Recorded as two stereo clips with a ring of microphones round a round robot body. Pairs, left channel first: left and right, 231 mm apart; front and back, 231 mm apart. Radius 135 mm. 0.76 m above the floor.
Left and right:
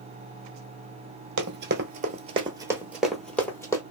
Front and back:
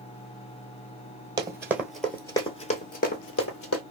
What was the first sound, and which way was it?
Running footsteps, 110° right.